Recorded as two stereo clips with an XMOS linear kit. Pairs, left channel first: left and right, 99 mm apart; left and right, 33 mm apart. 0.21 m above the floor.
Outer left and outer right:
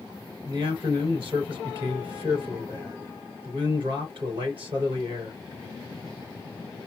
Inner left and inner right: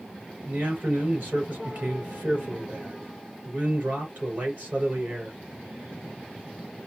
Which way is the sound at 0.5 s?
60° right (ahead or behind).